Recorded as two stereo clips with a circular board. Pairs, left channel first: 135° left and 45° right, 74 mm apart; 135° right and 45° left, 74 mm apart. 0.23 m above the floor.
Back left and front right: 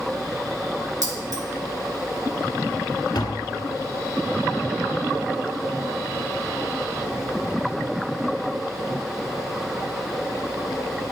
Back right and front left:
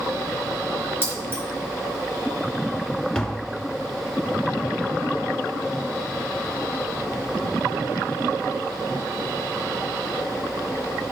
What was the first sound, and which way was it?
Keys jangling, 15° right.